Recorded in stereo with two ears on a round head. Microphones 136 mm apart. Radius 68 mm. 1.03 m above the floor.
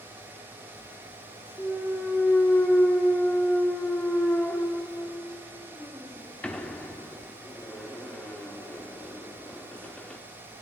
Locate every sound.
1.6 s a clunk: 5° left (ahead or behind), 1.2 m